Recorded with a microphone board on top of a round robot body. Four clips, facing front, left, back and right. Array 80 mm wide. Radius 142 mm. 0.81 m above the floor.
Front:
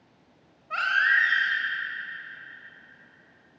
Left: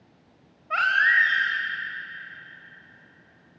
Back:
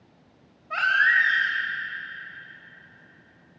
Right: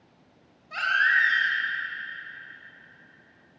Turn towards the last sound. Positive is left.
turn(degrees=85)